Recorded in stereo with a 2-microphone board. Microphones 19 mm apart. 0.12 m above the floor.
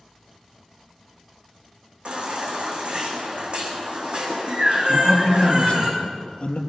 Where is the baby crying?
50° right (ahead or behind), 5 m.